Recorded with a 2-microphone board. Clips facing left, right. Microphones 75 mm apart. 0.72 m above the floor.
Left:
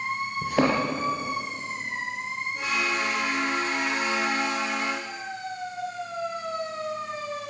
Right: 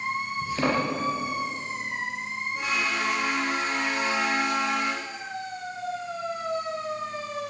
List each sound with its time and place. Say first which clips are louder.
0.4 s a thud: left 3 dB; 65° left (ahead or behind), 5 m